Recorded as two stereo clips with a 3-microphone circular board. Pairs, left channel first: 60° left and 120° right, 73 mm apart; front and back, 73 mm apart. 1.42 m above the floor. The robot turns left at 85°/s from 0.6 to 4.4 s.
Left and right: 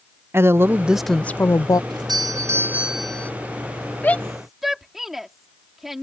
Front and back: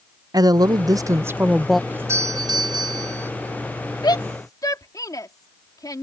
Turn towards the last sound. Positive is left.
turn(degrees=-30)